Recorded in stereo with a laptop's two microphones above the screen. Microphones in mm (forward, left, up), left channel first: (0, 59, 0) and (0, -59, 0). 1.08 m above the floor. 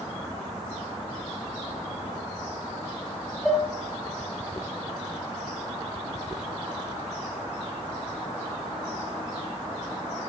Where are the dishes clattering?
Centre (ahead or behind), 3.5 m.